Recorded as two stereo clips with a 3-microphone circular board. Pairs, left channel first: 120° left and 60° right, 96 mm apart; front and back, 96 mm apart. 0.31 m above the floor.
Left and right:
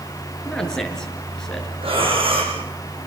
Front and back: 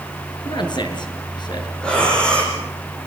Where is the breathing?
80° right, 8 m.